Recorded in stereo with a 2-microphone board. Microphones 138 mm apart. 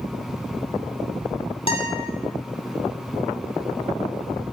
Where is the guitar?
45° left (ahead or behind), 2.5 m.